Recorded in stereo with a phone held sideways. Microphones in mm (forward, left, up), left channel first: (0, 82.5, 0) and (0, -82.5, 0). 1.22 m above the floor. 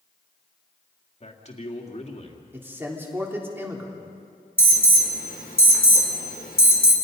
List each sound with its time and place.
1.2 s a man speaking: 45° left (ahead or behind), 2.5 m
2.5 s a man speaking: 15° right (ahead or behind), 3.5 m
4.6 s an alarm: 65° left (ahead or behind), 3 m